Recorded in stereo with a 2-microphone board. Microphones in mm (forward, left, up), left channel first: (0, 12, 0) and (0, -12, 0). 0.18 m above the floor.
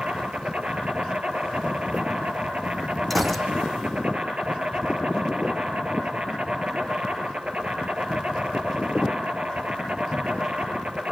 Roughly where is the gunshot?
Centre.